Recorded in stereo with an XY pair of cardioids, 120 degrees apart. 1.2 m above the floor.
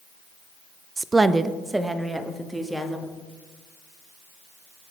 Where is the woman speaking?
20° right, 0.5 m; by 3.1 s 5° right, 2 m.